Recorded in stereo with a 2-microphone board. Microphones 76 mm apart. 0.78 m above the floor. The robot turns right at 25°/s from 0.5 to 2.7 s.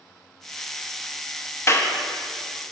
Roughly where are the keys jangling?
No keys jangling in this recording.